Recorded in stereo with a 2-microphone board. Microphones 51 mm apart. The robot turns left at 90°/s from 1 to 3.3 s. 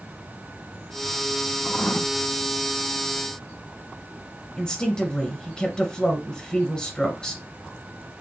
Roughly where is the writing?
Behind.